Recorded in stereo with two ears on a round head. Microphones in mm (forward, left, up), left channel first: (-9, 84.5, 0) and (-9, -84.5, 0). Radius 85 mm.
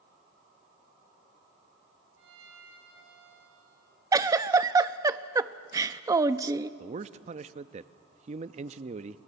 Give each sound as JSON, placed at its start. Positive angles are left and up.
{"t": 2.2, "sound": "a violin", "side_deg": -65, "distance_m": 5.5}
{"t": 4.1, "sound": "a giggle", "side_deg": -15, "distance_m": 0.5}
{"t": 6.8, "sound": "a man speaking", "side_deg": -35, "distance_m": 0.6}